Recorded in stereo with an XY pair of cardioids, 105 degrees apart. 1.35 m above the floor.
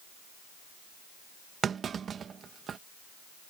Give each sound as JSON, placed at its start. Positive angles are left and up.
{"t": 1.6, "sound": "a clunk", "azimuth_deg": -50}